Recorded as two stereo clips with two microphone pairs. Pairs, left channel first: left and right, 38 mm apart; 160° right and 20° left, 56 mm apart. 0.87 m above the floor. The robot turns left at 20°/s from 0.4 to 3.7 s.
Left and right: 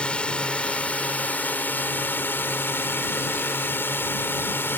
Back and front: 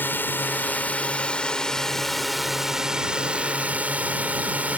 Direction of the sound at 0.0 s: 150° left.